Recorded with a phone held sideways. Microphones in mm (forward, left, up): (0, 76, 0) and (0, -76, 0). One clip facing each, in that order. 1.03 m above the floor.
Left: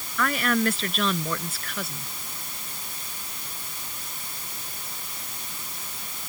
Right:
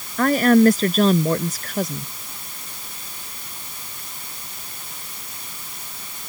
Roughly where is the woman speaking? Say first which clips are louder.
Right 11 dB; right.